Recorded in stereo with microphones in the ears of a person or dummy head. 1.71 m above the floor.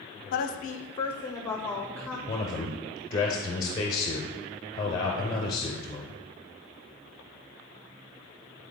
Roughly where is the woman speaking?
Left.